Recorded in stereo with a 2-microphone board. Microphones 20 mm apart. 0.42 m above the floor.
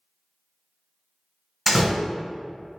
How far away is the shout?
I don't hear a shout.